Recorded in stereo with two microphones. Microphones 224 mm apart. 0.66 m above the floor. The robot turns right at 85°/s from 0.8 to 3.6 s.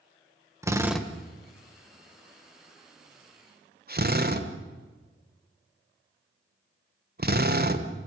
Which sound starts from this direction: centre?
A drill, at 0.6 s.